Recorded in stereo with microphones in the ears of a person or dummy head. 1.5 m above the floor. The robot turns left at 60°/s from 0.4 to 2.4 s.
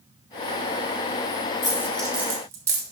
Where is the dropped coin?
20° left (ahead or behind), 2 m; by 2.8 s 15° right (ahead or behind), 2 m.